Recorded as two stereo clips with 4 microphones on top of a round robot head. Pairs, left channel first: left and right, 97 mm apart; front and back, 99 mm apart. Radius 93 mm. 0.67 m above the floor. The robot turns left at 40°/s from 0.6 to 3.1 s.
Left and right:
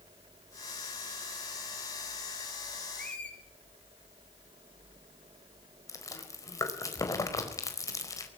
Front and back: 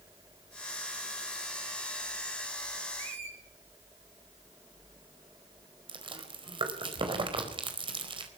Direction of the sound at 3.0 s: 175° left.